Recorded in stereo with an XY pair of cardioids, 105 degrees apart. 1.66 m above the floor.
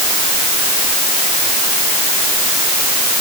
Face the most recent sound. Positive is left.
No sound to turn to.